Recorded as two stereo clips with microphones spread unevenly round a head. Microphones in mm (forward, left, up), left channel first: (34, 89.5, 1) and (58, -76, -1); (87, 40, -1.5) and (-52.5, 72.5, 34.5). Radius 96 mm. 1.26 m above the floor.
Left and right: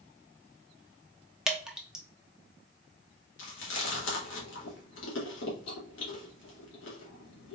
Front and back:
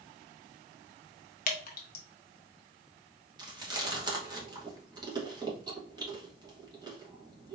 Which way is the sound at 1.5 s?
5° left.